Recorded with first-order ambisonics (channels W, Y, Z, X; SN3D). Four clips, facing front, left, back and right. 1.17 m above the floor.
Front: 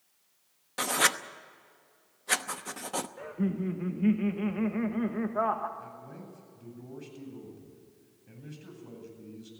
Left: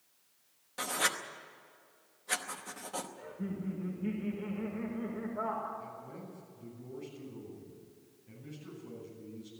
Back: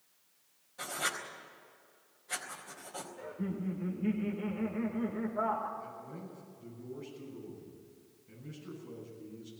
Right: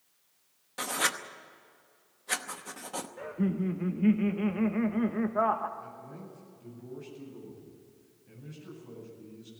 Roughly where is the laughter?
Ahead right.